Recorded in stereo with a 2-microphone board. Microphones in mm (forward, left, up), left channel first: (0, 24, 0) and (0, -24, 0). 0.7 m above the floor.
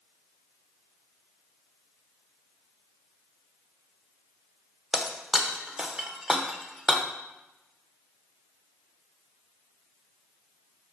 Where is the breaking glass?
10° right (ahead or behind), 0.9 m.